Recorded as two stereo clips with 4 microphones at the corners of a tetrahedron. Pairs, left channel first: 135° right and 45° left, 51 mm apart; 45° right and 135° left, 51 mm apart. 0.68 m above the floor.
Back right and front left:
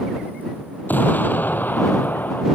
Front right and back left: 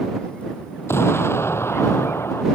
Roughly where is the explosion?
Right.